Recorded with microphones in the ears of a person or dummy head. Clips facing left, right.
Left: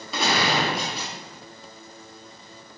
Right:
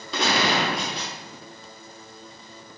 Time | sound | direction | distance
0.1 | a gunshot | centre (ahead or behind) | 0.8 m